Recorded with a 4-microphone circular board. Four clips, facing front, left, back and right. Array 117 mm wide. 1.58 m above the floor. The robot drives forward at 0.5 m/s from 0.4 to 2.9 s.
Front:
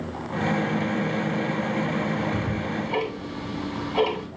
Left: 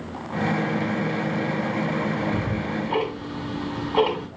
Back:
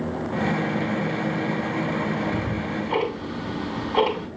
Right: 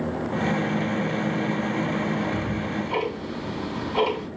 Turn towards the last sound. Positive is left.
turn(degrees=130)